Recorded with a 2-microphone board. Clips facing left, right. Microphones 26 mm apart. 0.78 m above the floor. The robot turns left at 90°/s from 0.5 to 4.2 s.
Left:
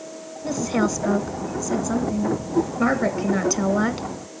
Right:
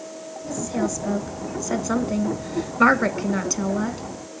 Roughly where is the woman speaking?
Left.